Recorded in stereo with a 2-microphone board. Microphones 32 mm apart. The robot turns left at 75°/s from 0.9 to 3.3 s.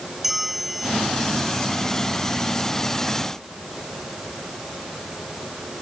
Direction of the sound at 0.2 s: 5° right (ahead or behind).